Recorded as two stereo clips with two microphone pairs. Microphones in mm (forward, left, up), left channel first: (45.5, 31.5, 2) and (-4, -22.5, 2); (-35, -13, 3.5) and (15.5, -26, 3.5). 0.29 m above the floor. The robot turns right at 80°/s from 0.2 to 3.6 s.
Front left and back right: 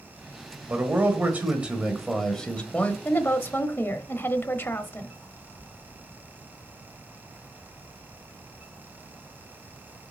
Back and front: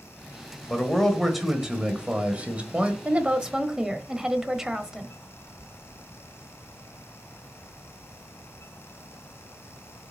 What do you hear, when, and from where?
0.7 s a man speaking: 155° right, 1.5 m; by 3.0 s 25° left, 1.5 m
3.0 s a woman speaking: 15° left, 1.0 m; by 5.2 s 55° left, 1.0 m